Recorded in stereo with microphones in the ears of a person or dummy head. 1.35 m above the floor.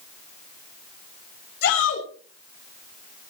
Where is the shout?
75° left (ahead or behind), 6 m.